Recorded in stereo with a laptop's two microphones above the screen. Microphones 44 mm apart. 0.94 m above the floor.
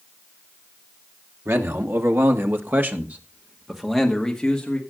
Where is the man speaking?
80° right, 2 m; by 4.8 s 15° left (ahead or behind), 2 m.